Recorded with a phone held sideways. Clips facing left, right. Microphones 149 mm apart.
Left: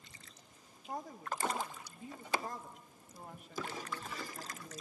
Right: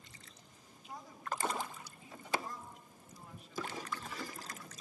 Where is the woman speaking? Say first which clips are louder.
Left 2 dB; 50° left (ahead or behind), 1.3 m.